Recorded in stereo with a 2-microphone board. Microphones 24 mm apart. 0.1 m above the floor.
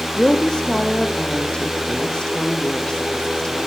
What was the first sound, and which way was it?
A woman speaking, 35° left (ahead or behind).